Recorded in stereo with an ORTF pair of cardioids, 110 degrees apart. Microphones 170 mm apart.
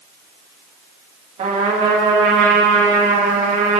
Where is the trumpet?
45° right, 2.5 m.